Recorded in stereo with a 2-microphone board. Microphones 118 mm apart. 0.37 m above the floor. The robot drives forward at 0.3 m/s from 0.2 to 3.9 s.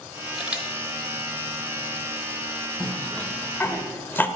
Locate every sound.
0.4 s a camera shutter: 10° right (ahead or behind), 1.5 m
2.8 s a cough: 15° left (ahead or behind), 1.3 m; by 4.3 s 20° left (ahead or behind), 1.1 m